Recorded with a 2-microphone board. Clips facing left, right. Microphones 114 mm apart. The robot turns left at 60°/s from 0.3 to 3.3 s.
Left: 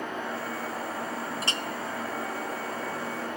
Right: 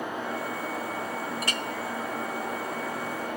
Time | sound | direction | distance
1.4 | a clink | 25° left (ahead or behind) | 0.7 m